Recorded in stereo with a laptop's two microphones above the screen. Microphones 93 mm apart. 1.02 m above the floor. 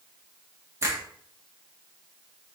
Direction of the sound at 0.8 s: 30° right (ahead or behind).